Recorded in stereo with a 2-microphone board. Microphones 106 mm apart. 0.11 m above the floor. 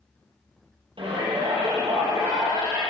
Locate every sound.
1.0 s a shout: 50° right (ahead or behind), 3.5 m; by 2.8 s 25° right (ahead or behind), 4.5 m